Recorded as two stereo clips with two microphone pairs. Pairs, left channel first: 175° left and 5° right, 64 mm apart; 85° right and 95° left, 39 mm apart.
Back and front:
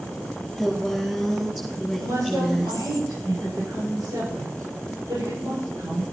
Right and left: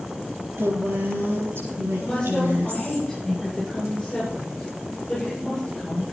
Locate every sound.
0.6 s a woman speaking: 85° left, 6 m; by 3.0 s 70° left, 5.5 m
2.0 s a woman speaking: 10° right, 9.5 m